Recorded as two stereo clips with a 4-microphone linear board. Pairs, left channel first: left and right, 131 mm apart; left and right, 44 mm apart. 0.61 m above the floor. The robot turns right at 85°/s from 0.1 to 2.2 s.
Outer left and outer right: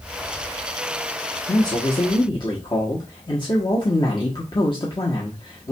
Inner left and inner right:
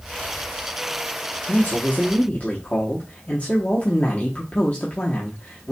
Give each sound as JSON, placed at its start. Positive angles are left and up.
{"t": 1.5, "sound": "a man speaking", "azimuth_deg": 45, "distance_m": 0.9}